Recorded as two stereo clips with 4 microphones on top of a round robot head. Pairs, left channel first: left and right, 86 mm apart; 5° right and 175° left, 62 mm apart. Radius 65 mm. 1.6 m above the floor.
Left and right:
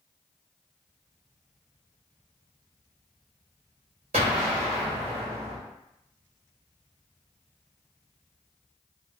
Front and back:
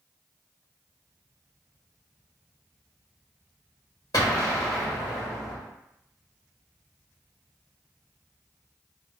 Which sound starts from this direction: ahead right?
An explosion, at 4.1 s.